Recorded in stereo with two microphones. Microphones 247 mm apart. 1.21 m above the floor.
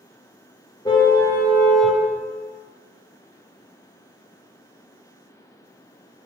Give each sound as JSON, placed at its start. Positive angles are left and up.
{"t": 0.8, "sound": "a car horn", "side_deg": 15, "distance_m": 3.0}